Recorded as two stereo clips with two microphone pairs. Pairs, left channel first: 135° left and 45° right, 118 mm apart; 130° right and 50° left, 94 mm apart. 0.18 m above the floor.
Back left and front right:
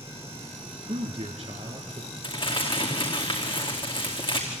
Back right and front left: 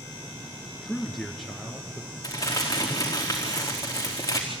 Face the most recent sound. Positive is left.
turn(degrees=175)